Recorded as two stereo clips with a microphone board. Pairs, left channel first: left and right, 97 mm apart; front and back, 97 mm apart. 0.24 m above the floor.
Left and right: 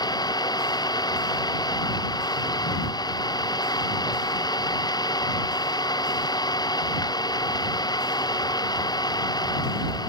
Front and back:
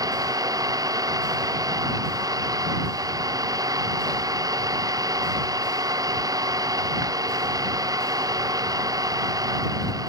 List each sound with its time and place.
0.0 s an engine running: 130° left